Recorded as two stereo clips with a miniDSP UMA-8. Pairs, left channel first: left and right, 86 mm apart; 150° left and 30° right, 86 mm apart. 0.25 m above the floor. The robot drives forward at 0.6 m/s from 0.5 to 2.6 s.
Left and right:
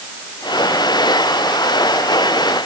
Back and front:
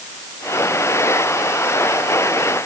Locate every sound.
Only background noise.